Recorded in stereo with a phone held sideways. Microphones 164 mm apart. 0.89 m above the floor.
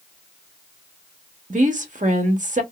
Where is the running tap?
No running tap in this recording.